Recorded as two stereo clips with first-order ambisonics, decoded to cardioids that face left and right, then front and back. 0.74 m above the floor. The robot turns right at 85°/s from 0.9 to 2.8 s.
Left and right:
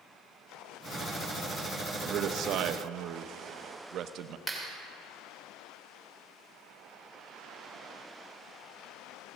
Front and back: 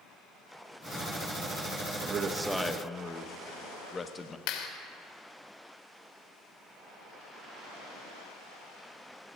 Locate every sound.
2.0 s a man speaking: 140° right, 0.6 m; by 4.4 s 70° right, 0.6 m
4.5 s a clap: straight ahead, 1.9 m